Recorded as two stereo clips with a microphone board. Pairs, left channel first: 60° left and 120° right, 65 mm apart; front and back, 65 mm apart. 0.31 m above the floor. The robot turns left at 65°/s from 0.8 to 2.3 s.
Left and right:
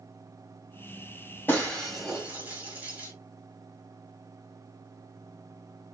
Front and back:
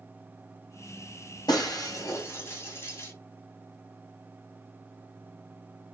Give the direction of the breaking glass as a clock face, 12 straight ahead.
12 o'clock.